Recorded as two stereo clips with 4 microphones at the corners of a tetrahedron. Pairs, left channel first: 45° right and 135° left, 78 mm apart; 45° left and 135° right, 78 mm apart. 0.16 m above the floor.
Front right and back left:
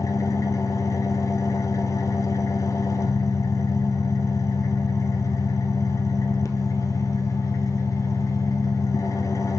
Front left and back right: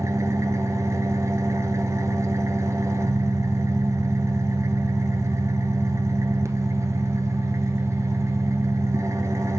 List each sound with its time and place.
0.0 s an engine running: 85° right, 0.9 m